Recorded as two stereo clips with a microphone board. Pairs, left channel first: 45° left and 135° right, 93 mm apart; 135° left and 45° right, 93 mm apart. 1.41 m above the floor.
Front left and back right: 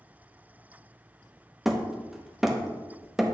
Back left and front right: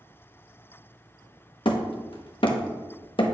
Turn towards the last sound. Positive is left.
turn(degrees=140)